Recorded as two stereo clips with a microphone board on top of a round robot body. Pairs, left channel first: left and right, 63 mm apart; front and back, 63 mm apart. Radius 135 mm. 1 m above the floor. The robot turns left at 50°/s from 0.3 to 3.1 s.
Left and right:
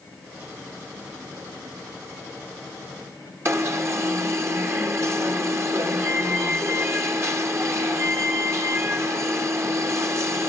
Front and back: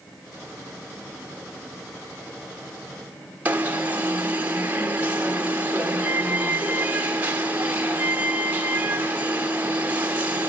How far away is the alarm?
About 1.9 m.